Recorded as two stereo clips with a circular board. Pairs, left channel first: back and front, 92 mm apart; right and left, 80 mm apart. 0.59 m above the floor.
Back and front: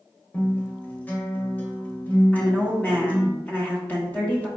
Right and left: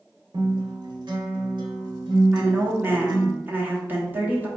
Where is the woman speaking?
130° left, 1.2 m.